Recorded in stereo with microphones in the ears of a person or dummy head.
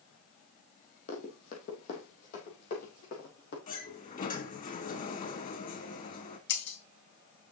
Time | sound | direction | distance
1.1 | running footsteps | 40° left (ahead or behind) | 3.5 m
3.7 | a sliding door | 40° left (ahead or behind) | 1.8 m
6.5 | breaking glass | 55° left (ahead or behind) | 2.0 m